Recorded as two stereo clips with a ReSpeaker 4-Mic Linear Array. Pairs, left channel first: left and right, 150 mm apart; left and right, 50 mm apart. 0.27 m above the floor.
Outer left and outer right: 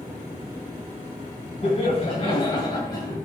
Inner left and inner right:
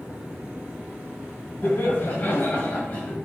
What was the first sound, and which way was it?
Laughter, 45° left (ahead or behind).